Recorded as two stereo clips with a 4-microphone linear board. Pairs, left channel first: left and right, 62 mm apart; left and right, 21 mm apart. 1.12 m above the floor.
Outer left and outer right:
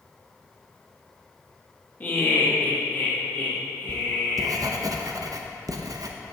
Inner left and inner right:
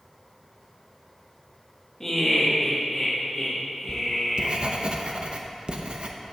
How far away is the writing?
About 0.5 m.